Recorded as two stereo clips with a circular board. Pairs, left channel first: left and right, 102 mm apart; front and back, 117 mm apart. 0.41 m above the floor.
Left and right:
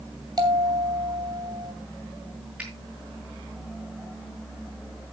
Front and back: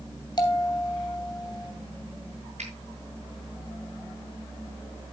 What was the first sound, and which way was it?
A bell, 50° right.